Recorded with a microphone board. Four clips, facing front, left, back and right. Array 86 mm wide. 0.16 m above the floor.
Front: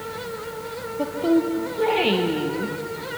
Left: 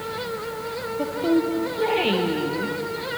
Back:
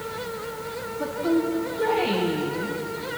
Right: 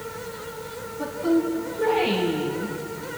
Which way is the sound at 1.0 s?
30° left.